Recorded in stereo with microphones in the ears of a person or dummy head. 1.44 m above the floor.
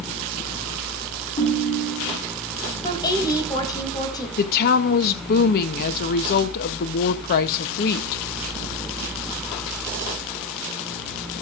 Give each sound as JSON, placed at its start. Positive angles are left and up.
{"t": 1.4, "sound": "a ringtone", "side_deg": 35, "distance_m": 2.5}
{"t": 2.8, "sound": "a woman speaking", "side_deg": 20, "distance_m": 2.5}
{"t": 4.4, "sound": "a woman speaking", "side_deg": 50, "distance_m": 0.6}